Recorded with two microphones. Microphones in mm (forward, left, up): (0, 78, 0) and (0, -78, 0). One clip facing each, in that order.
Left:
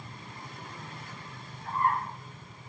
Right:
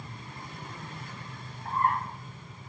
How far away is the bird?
About 4.5 m.